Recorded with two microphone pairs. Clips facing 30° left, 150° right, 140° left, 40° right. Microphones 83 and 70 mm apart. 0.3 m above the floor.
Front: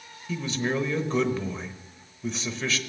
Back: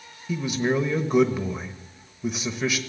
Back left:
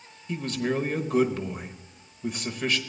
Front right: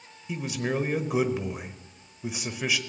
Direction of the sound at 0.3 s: 95° right.